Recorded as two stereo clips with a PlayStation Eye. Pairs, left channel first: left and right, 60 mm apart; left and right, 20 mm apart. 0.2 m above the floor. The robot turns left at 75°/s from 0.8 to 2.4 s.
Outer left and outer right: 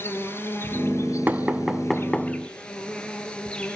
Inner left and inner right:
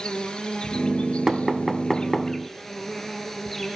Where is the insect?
135° left, 3 m; by 3.8 s 15° left, 3 m.